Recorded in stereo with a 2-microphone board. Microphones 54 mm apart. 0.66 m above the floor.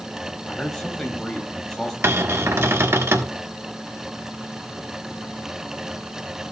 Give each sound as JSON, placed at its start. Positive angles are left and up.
{"t": 0.5, "sound": "a man speaking", "side_deg": 10, "distance_m": 3.0}
{"t": 2.0, "sound": "a cupboard door", "side_deg": -55, "distance_m": 1.5}